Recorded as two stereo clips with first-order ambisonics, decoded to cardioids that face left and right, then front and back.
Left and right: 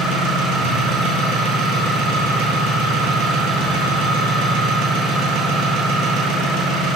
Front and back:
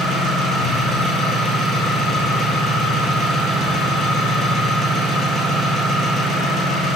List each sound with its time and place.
0.0 s an engine running: 70° right, 0.7 m